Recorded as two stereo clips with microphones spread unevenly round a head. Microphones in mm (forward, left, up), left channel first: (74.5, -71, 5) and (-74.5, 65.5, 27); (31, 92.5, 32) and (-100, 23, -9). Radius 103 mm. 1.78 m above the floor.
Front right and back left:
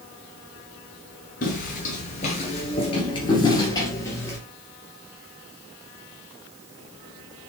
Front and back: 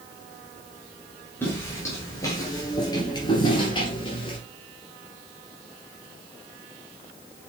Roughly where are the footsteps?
Ahead.